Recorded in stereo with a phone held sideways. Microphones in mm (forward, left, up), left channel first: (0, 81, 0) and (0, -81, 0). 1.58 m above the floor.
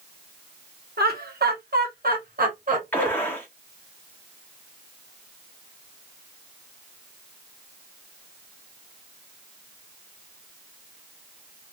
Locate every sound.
1.0 s laughter: 75° right (ahead or behind), 1.3 m; by 3.1 s 55° right (ahead or behind), 2 m
2.9 s a gunshot: 10° left (ahead or behind), 1.1 m